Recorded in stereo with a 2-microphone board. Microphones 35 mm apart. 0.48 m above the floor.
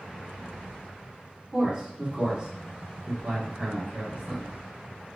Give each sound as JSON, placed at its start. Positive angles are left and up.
{"t": 1.5, "sound": "a man speaking", "side_deg": -20, "distance_m": 1.2}